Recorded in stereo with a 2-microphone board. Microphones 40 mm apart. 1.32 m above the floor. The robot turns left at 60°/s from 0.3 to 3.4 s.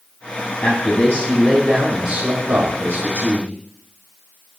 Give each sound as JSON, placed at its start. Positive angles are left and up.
{"t": 0.6, "sound": "a man speaking", "azimuth_deg": 65, "distance_m": 3.5}